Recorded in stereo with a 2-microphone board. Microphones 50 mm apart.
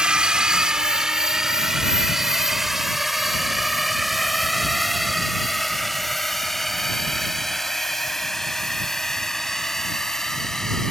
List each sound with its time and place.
0.0 s a drone: 15° right (ahead or behind); by 10.9 s 10° left (ahead or behind)